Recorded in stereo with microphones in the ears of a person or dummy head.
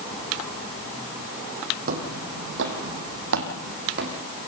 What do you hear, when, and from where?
1.9 s footsteps: 50° right (ahead or behind), 2.5 m; by 4.2 s 55° right (ahead or behind), 4 m